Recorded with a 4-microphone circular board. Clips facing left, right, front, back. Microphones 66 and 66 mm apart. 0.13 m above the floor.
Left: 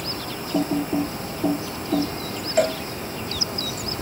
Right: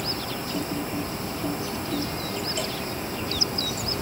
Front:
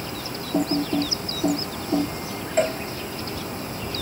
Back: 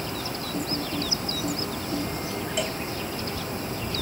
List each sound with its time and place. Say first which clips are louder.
0.5 s typing on a keyboard: left 9 dB, front 9 dB; 40° left
2.6 s a cowbell: left 10 dB, front 10 dB; 55° left